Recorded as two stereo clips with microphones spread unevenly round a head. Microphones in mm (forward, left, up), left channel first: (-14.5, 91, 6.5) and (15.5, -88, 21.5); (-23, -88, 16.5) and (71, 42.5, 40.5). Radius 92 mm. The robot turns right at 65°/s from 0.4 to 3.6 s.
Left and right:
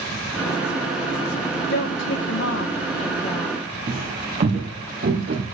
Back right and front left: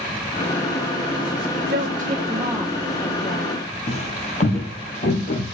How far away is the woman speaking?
About 1.0 m.